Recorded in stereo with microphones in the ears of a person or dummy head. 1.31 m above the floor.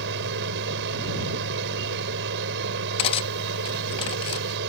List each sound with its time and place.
0.0 s a machine running: 60° right (ahead or behind)
3.0 s cutlery clinking: 35° left (ahead or behind)